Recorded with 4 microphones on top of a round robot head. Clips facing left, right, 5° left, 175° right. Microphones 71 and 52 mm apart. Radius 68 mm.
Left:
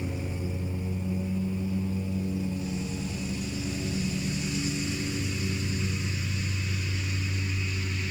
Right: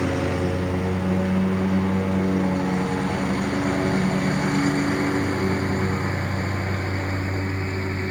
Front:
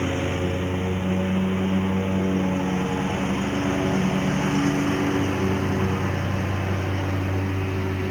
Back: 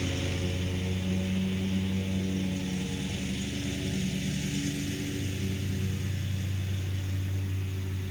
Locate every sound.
0.0 s a lawn mower: 60° right; by 8.1 s 40° right